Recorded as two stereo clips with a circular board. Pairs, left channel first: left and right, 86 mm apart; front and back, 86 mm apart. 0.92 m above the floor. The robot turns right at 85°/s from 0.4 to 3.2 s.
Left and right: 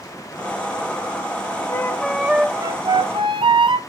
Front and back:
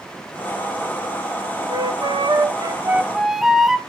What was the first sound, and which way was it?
A flute, 145° left.